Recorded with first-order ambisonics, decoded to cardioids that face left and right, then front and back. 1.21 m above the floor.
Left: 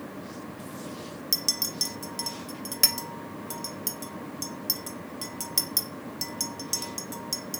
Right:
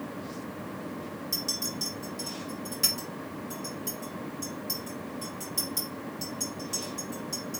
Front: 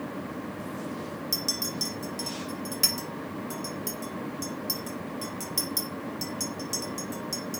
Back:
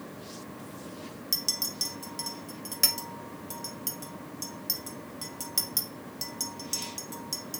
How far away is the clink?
About 0.6 m.